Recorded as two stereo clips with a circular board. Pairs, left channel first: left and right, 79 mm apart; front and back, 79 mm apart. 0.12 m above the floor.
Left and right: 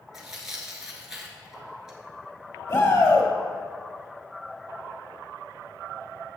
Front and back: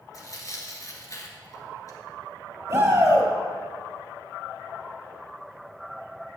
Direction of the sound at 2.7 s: 125° left.